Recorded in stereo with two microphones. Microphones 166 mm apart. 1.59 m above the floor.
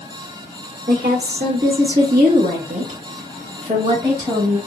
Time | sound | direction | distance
0.9 | a woman speaking | 75° right (ahead or behind) | 1.2 m